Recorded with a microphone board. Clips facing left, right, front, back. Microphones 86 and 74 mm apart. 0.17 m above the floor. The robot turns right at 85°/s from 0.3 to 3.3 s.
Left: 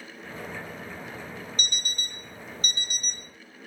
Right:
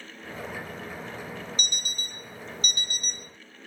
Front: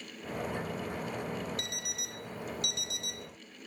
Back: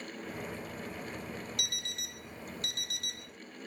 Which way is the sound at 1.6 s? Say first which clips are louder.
Left 1 dB, front 1 dB; 50° left.